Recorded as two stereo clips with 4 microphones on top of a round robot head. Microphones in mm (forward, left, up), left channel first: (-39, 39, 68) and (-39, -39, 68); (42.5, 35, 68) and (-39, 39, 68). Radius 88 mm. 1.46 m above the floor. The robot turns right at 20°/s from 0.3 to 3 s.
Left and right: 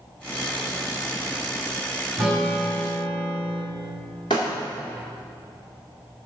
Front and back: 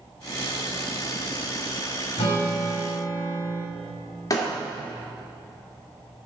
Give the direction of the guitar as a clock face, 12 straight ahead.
12 o'clock.